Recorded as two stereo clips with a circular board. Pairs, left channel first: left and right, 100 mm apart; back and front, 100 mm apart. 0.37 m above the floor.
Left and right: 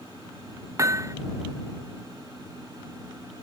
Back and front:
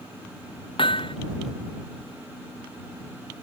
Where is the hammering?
150° right.